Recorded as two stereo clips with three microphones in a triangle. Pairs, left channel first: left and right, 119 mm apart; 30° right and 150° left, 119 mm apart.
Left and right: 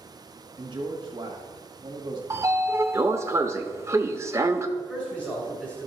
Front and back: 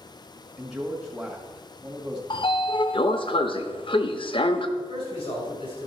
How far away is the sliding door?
About 0.7 m.